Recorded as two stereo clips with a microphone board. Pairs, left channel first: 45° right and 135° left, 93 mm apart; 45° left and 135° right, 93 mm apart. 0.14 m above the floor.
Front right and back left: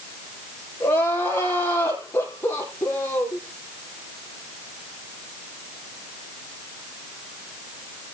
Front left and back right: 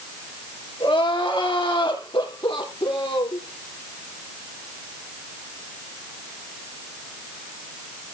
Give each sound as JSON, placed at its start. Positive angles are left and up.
{"t": 0.8, "sound": "crying", "azimuth_deg": 20, "distance_m": 4.5}